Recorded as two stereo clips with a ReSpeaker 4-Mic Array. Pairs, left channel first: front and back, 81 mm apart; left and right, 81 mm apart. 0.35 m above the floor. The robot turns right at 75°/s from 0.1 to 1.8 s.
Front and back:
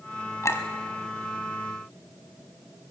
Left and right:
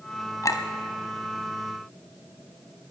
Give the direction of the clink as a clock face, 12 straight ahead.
10 o'clock.